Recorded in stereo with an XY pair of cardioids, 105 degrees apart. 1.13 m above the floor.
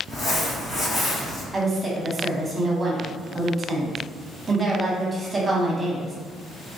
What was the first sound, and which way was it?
Crumpling, 55° left.